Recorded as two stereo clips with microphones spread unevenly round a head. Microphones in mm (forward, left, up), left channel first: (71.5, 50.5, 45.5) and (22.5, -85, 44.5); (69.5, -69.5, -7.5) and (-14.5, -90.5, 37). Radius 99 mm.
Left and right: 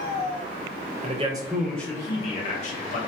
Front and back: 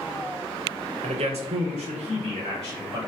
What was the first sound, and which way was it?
A man speaking, 160° right.